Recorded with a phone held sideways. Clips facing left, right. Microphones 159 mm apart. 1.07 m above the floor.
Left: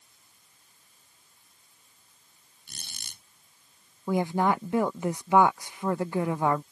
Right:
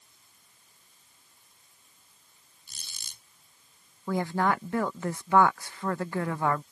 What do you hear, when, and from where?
2.7 s a squeak: 65° left (ahead or behind)
4.1 s a woman speaking: 15° left (ahead or behind)